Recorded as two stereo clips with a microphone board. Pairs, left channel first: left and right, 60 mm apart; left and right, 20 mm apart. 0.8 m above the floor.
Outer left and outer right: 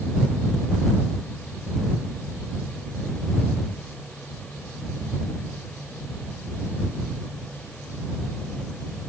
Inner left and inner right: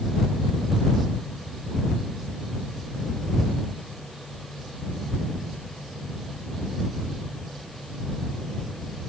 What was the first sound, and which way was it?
Only background noise.